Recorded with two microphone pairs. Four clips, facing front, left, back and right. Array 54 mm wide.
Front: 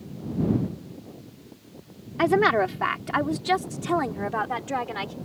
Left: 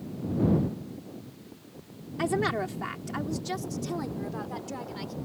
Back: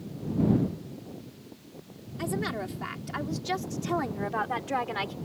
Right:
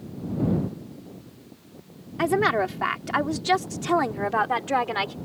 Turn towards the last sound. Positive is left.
turn(degrees=-95)